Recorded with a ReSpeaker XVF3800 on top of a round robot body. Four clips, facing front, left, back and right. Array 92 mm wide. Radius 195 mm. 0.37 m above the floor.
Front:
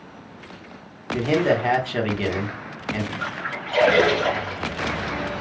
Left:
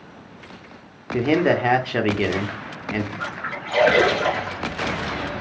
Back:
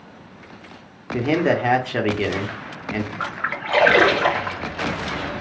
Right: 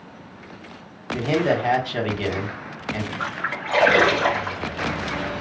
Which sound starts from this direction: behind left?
A man speaking, at 1.1 s.